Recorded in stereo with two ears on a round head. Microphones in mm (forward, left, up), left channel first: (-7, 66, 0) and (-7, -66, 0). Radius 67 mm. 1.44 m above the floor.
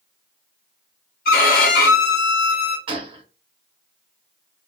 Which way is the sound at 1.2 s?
60° left (ahead or behind).